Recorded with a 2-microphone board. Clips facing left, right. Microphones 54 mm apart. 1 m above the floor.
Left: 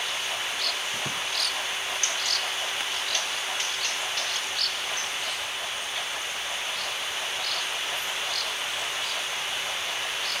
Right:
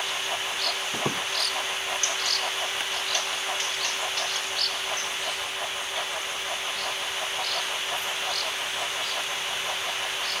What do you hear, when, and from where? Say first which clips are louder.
0.9 s a squeak: right 3 dB; 75° right (ahead or behind)